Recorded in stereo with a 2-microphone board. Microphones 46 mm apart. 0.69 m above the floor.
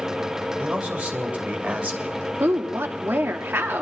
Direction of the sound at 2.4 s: 55° right (ahead or behind).